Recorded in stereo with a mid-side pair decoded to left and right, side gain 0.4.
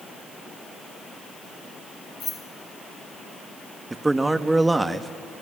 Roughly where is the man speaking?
Ahead.